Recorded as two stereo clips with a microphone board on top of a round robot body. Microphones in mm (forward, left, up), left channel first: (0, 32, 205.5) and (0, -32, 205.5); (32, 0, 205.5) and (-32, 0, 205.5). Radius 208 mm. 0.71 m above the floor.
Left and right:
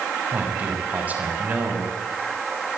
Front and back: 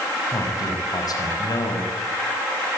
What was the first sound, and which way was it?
A man speaking, 25° right.